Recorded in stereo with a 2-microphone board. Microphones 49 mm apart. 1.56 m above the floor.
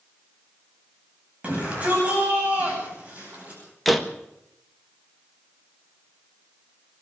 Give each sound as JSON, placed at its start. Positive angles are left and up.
{"t": 1.4, "sound": "a shout", "side_deg": -30, "distance_m": 10.0}
{"t": 3.9, "sound": "a door slam", "side_deg": 0, "distance_m": 1.5}